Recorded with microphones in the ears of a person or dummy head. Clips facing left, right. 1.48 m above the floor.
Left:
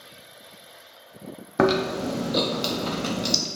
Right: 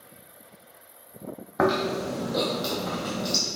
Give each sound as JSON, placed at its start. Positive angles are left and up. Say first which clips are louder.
{"t": 1.6, "sound": "chewing", "louder": "left 3 dB", "side_deg": 45, "distance_m": 0.5}